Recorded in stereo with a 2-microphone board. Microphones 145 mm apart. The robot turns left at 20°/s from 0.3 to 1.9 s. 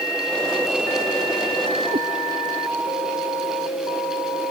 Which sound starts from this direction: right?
A cat meowing, at 1.9 s.